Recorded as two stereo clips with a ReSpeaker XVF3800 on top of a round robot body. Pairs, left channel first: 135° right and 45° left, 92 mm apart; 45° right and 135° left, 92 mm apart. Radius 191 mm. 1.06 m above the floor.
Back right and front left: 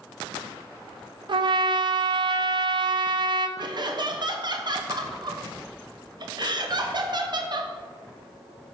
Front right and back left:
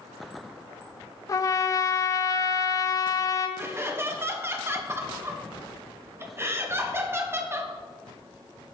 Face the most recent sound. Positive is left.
turn(degrees=75)